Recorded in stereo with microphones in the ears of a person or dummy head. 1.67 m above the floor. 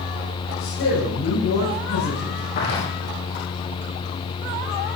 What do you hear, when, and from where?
0.6 s a man speaking: 75° left (ahead or behind), 8 m
2.5 s footsteps: 50° left (ahead or behind), 4.5 m